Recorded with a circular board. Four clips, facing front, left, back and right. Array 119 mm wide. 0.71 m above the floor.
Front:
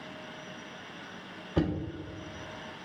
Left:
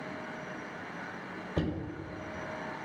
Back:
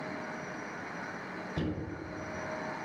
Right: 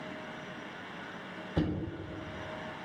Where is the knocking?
5° right, 1.4 m.